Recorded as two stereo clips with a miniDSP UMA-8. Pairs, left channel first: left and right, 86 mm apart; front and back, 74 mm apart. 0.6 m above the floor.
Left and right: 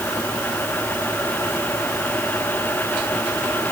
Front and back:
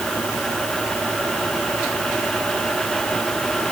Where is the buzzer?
I don't hear a buzzer.